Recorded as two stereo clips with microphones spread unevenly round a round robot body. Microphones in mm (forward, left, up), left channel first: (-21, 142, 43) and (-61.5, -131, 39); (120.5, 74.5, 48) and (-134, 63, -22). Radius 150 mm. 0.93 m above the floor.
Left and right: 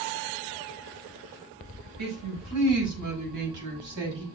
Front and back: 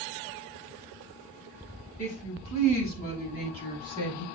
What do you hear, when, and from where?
2.0 s a woman speaking: 65° right, 7 m; by 4.2 s 75° right, 6 m